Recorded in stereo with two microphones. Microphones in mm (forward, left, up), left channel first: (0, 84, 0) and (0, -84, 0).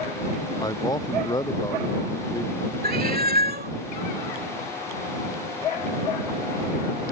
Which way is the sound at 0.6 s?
25° left (ahead or behind).